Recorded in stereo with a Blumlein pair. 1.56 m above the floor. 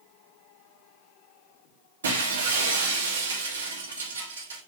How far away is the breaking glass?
About 3 m.